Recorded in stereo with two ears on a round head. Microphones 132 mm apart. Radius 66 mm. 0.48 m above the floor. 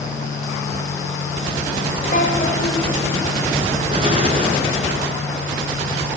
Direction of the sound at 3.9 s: 40° right (ahead or behind).